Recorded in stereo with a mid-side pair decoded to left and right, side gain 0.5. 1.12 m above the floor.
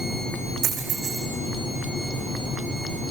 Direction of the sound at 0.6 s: 65° right.